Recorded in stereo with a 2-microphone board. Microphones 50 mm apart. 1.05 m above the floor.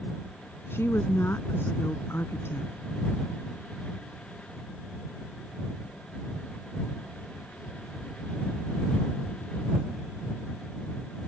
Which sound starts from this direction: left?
A woman speaking, at 0.7 s.